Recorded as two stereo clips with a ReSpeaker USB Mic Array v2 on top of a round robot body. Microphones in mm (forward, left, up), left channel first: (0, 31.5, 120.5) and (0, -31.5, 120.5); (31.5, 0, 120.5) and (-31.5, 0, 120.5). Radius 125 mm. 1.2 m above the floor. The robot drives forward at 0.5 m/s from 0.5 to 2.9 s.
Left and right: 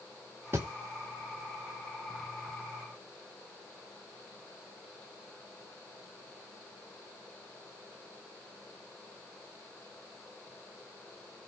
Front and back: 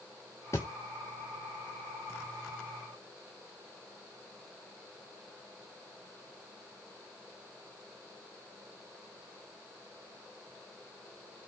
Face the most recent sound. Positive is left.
turn(degrees=-165)